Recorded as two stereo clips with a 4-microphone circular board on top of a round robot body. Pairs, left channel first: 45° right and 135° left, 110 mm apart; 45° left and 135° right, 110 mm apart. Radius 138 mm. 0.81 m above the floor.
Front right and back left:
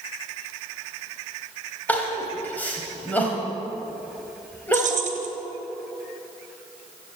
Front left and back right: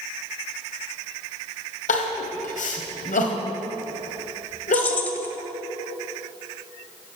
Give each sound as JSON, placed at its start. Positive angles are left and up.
{"t": 1.9, "sound": "crying", "azimuth_deg": 35, "distance_m": 1.8}
{"t": 4.7, "sound": "keys jangling", "azimuth_deg": 120, "distance_m": 1.4}